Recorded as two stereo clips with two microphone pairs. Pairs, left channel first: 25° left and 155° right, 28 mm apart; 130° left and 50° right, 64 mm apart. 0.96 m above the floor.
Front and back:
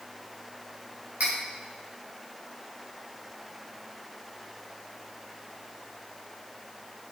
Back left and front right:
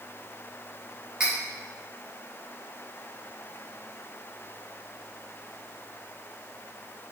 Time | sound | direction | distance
1.2 | cutlery clinking | 125° right | 3 m